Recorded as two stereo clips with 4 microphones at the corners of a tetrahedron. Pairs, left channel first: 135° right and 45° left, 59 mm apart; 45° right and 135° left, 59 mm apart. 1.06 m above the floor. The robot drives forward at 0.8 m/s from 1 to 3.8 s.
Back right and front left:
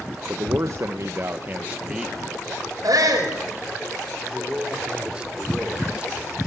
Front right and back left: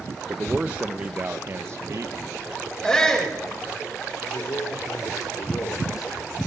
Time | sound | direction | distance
0.3 | a man speaking | 70° left | 1.1 m
2.8 | a shout | 35° left | 6 m
4.3 | a man speaking | 30° right | 3.5 m